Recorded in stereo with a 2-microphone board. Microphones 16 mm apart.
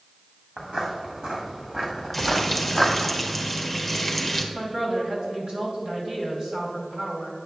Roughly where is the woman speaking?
Right.